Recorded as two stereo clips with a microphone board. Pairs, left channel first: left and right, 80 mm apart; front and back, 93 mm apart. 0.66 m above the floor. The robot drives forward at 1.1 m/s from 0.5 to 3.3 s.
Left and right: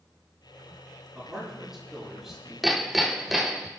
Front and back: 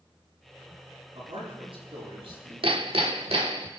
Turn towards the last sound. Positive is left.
turn(degrees=180)